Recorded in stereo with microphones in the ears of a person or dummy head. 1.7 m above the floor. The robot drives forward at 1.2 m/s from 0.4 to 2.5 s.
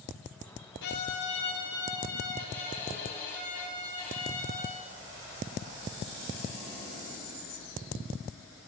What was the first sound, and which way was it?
A violin, 55° left (ahead or behind).